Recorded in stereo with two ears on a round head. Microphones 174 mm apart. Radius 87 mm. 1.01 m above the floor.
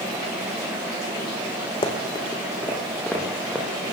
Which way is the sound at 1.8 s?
25° left (ahead or behind).